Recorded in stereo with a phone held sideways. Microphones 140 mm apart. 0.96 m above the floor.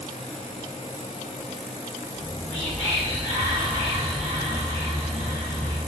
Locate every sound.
2.1 s whispering: 35° right (ahead or behind), 0.9 m